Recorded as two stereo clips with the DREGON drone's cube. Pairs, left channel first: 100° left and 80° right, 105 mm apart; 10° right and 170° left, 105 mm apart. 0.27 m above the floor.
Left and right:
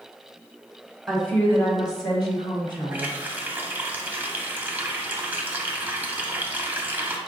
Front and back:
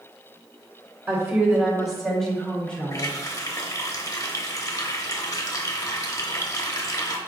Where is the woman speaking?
170° right, 1.1 m; by 3.1 s 65° left, 2.5 m.